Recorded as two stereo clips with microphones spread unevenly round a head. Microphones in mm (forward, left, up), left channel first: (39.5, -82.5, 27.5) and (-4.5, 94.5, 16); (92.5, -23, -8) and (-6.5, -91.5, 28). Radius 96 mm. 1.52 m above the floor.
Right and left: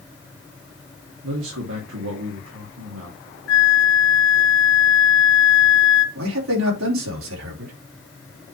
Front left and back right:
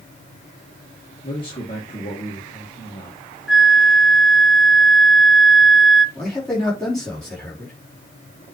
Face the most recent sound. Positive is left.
turn(degrees=120)